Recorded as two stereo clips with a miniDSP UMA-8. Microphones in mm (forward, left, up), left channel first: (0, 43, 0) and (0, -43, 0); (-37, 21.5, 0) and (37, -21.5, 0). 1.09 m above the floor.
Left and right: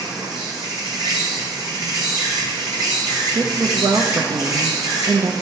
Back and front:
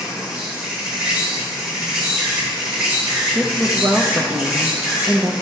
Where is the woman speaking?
90° right, 0.8 m.